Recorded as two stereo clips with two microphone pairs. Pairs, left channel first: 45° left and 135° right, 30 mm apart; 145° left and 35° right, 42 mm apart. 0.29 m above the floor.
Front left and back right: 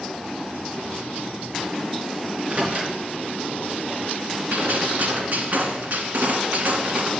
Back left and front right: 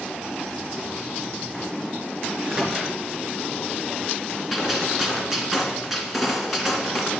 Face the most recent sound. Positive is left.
turn(degrees=-120)